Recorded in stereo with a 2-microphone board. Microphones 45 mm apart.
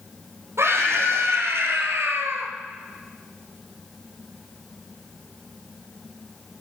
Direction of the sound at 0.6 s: 75° right (ahead or behind).